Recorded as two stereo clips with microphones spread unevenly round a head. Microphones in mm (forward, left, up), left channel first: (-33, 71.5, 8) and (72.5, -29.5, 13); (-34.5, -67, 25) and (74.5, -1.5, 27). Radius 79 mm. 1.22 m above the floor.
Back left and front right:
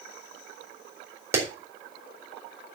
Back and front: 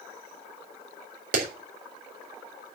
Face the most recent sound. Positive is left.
turn(degrees=25)